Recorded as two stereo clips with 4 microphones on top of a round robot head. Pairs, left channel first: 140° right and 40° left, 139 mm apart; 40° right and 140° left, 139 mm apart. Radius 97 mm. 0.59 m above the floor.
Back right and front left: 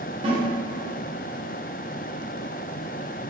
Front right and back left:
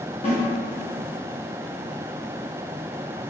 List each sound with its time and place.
0.2 s a snare drum: 5° right, 0.8 m